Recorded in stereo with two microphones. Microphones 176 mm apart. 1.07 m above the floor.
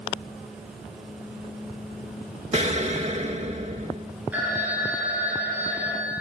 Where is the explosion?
40° right (ahead or behind), 0.9 m.